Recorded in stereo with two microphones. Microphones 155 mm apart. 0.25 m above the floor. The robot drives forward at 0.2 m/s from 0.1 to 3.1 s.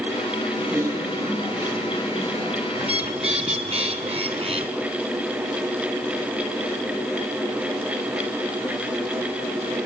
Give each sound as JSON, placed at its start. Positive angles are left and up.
{"t": 0.6, "sound": "typing on a keyboard", "side_deg": -15, "distance_m": 4.0}
{"t": 2.8, "sound": "a bird", "side_deg": -40, "distance_m": 1.7}